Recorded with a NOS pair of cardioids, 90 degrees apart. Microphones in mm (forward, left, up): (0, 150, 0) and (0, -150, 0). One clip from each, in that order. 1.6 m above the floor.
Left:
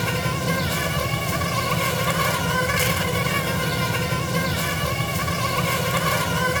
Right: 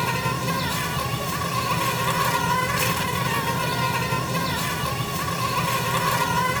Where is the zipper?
No zipper in this recording.